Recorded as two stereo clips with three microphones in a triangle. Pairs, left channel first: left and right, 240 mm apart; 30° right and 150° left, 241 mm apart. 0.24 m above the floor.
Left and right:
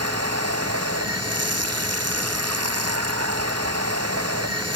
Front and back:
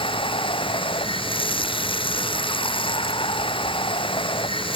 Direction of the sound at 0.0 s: 100° right.